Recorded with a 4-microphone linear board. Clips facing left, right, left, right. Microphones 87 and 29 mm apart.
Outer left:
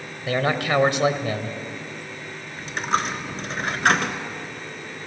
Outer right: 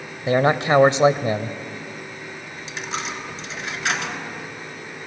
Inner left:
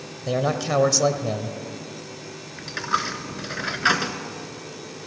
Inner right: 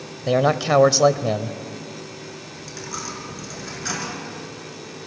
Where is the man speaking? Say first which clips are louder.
Outer right 5 dB, inner right 5 dB; 25° right (ahead or behind), 0.9 m.